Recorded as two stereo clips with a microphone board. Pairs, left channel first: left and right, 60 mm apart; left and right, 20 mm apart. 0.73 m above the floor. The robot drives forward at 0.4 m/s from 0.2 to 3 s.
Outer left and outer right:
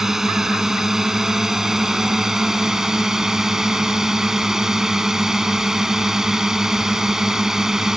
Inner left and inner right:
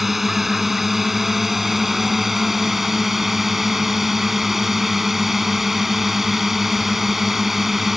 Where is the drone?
5° right (ahead or behind); by 8.0 s 10° right (ahead or behind).